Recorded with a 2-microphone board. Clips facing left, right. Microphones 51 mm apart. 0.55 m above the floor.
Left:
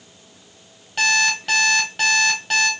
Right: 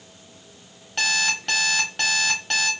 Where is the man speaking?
No man speaking in this recording.